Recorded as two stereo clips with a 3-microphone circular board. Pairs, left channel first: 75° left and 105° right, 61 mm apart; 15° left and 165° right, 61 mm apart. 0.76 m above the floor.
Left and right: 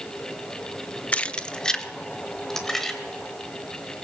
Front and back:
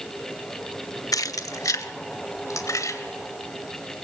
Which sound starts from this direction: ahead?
Keys jangling, at 1.1 s.